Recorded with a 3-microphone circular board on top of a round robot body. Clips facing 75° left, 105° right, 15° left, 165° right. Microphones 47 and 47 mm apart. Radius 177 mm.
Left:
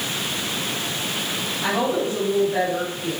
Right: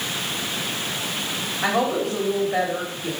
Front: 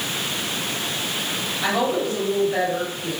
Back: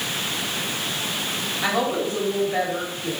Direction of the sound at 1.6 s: 80° right.